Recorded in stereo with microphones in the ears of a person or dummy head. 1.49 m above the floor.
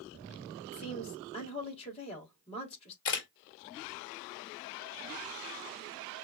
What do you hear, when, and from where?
0.7 s a woman speaking: 35° left (ahead or behind), 4.5 m
3.0 s a camera shutter: 65° left (ahead or behind), 2 m